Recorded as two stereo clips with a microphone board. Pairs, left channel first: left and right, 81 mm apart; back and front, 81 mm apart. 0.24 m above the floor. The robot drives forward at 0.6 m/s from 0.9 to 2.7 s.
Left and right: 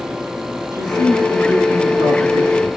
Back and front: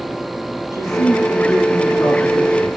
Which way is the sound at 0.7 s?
130° right.